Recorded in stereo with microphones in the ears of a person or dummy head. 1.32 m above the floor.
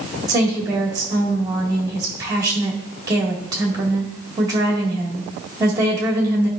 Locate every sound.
0.3 s a woman speaking: 10° right (ahead or behind), 1.9 m